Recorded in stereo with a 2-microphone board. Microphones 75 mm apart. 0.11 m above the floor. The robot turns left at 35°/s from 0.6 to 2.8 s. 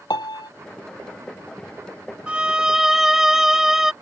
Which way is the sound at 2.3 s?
15° right (ahead or behind).